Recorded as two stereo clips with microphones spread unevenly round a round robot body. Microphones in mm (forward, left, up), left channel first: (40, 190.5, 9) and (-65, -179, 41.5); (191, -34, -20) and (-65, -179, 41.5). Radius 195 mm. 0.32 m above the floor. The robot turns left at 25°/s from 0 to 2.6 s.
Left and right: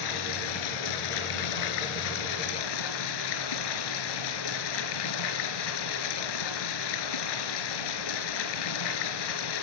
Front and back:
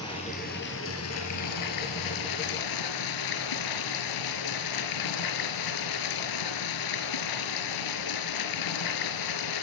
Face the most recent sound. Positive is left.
turn(degrees=45)